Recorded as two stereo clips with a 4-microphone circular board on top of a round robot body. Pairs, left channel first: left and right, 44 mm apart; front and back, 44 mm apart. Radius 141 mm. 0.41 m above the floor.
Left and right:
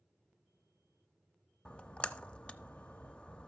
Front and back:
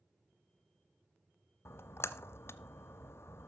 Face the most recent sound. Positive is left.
turn(degrees=25)